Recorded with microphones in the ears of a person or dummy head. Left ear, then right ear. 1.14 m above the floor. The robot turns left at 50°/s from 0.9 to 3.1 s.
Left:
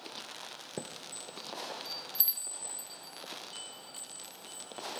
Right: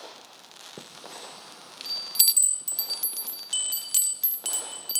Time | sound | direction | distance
0.8 | a chime | 25° left (ahead or behind) | 0.5 m